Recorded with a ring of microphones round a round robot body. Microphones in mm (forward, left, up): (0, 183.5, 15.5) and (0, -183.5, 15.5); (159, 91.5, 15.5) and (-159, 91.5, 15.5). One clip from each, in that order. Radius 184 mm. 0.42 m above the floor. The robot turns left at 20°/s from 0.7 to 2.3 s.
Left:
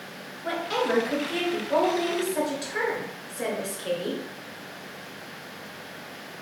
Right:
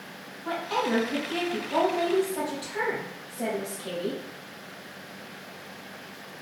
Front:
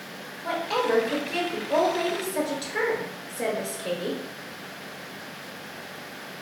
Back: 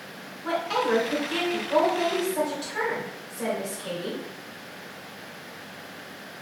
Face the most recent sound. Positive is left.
turn(degrees=50)